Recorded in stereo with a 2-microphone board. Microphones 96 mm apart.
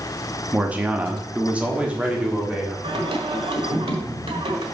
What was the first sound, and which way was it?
A man speaking, 15° right (ahead or behind).